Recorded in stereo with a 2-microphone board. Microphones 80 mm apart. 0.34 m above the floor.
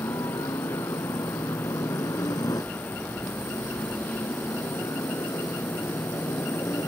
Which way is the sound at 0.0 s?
60° left (ahead or behind).